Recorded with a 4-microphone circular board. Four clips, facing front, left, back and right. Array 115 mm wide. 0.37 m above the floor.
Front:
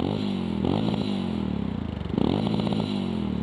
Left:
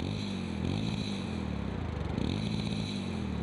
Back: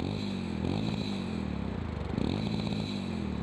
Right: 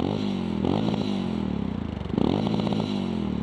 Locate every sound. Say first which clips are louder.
0.0 s a motorcycle: right 10 dB, front 8 dB; 55° right